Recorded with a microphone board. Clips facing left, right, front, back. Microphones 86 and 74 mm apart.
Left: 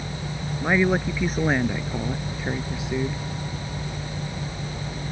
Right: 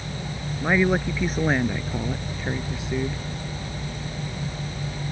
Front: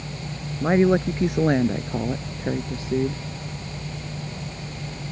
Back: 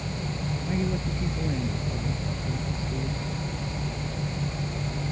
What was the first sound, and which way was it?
A woman speaking, straight ahead.